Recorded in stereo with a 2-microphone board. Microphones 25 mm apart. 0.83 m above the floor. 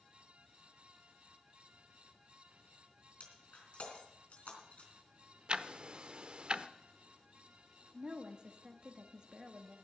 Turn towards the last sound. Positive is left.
turn(degrees=-40)  # may be behind; listen again after turning